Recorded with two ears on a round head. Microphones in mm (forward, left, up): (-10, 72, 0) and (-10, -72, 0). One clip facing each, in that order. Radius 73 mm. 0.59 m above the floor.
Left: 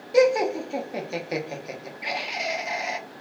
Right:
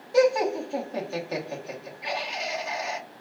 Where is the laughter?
15° left (ahead or behind), 0.6 m.